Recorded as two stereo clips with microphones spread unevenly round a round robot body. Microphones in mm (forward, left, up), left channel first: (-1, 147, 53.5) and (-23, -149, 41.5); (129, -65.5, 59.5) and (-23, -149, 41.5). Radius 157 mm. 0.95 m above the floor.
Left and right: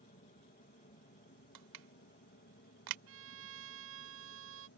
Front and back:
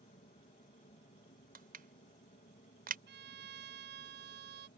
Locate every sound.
0.0 s an aircraft: 40° left; by 4.8 s 55° left
1.6 s crushing: 115° right
3.1 s a violin: 140° right